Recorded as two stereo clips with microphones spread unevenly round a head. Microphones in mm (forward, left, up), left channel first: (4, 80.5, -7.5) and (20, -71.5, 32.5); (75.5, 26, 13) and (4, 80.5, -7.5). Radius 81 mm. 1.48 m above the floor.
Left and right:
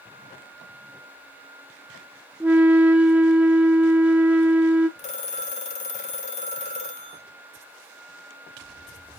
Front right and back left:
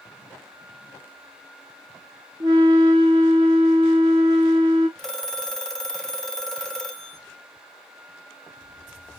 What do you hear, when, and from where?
2.4 s a flute: 170° right, 0.5 m
5.0 s a phone ringing: 40° left, 0.9 m